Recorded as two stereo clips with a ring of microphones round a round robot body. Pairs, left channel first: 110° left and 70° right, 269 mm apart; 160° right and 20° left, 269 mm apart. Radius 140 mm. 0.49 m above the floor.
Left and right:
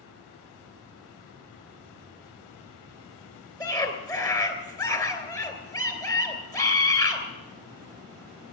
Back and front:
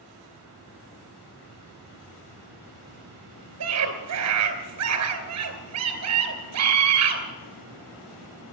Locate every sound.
3.6 s a scream: 35° left, 3 m